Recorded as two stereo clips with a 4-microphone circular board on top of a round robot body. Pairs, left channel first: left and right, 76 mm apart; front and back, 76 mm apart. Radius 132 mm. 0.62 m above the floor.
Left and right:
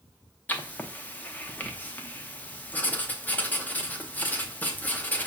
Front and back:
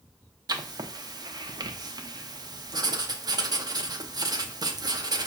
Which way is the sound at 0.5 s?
155° left.